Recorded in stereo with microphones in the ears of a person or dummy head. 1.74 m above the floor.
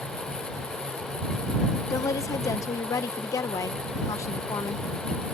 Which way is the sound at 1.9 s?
20° left (ahead or behind).